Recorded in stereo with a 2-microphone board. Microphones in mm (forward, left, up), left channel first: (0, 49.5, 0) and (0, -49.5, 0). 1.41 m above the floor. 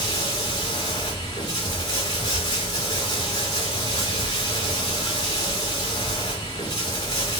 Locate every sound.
0.0 s running water: 45° left (ahead or behind), 3.5 m